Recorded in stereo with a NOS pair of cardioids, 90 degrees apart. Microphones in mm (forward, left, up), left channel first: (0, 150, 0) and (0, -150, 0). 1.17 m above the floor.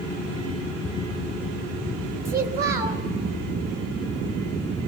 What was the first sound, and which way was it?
A child speaking, 35° right.